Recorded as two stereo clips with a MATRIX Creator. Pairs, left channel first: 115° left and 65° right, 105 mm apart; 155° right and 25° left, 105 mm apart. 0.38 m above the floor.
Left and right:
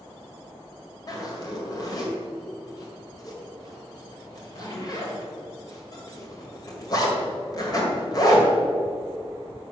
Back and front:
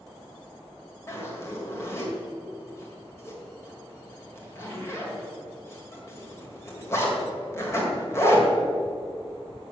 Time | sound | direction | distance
1.1 | a zipper | 150° left | 2 m